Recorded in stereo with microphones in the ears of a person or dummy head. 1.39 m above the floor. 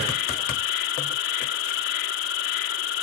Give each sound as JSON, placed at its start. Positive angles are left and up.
{"t": 0.0, "sound": "an insect", "side_deg": 70}